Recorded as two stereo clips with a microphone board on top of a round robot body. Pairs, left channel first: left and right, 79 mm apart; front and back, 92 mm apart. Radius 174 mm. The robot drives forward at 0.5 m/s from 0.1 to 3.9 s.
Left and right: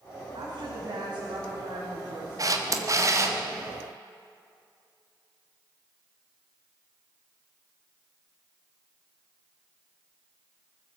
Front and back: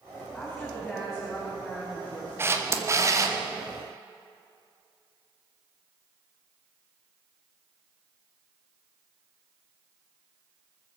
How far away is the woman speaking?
About 5 m.